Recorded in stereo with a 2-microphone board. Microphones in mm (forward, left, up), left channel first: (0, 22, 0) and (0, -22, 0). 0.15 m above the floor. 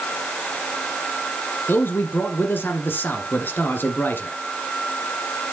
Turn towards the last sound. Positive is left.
turn(degrees=55)  # may be behind; listen again after turning